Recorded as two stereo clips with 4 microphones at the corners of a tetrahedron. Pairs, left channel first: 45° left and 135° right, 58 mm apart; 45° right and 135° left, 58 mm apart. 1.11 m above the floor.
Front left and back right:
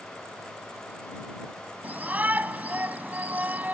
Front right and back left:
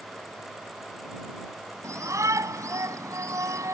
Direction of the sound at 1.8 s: 165° left.